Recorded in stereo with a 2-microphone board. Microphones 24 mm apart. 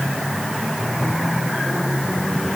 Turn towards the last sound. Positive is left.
No sound to turn to.